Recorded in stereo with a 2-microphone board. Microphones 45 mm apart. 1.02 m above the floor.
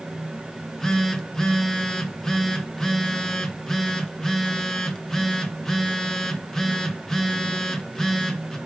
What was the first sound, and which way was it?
A phone buzzing, 10° left (ahead or behind).